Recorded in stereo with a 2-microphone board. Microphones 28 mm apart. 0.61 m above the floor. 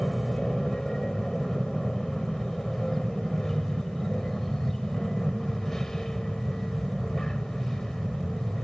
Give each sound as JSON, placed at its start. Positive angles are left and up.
{"t": 0.0, "sound": "an aircraft", "side_deg": 15}